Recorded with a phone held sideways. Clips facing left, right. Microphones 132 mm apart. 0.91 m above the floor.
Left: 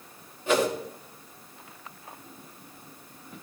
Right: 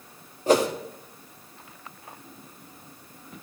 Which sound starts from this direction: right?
A whoosh, at 0.5 s.